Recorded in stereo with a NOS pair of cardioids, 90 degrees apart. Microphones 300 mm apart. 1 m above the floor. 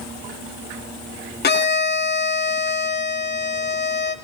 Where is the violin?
35° left, 1.0 m.